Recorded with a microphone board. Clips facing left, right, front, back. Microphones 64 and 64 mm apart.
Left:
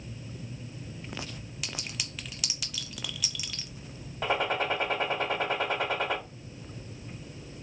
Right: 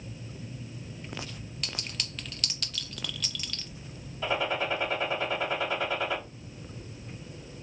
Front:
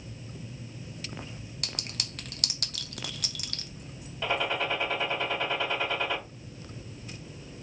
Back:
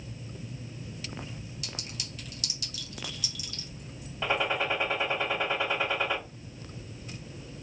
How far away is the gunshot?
About 1.9 m.